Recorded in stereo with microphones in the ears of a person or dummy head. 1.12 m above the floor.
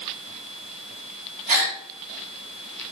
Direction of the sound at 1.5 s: 40° right (ahead or behind).